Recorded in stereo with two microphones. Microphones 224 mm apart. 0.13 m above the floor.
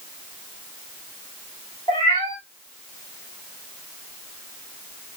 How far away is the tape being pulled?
No tape being pulled in this recording.